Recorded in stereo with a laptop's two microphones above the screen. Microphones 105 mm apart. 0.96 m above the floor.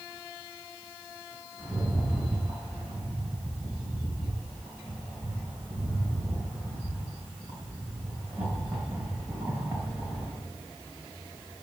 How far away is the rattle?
About 3.5 m.